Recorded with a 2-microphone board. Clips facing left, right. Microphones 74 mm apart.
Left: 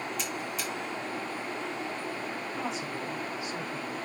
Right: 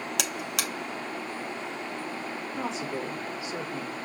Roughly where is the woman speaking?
Right.